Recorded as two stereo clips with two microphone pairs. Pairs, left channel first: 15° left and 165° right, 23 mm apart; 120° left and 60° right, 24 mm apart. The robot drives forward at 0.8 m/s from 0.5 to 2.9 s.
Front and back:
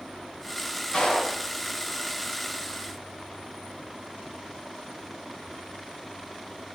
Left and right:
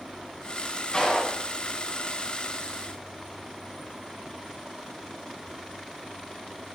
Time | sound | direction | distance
0.9 | a clap | 60° left | 6 m